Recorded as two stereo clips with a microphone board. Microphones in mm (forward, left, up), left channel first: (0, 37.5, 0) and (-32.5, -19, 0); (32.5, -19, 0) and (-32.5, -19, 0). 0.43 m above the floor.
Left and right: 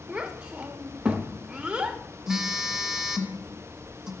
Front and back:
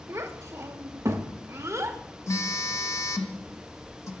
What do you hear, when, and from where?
0.1 s a child speaking: 170° left, 0.6 m
2.3 s a phone buzzing: 40° right, 0.6 m